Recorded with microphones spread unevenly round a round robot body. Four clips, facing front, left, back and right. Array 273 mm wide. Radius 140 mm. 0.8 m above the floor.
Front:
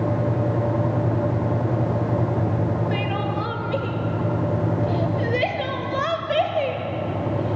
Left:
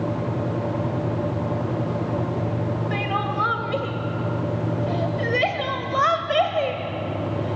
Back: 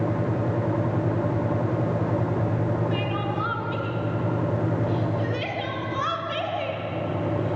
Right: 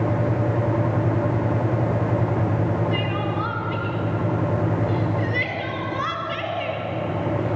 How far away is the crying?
About 1.9 m.